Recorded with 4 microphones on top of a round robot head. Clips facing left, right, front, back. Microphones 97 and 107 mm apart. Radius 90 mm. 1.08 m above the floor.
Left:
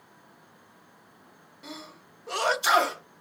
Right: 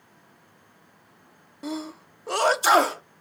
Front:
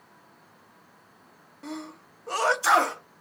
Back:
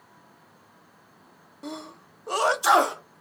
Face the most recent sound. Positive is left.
turn(degrees=-115)